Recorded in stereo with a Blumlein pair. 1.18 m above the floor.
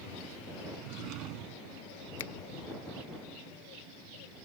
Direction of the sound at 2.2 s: 55° left.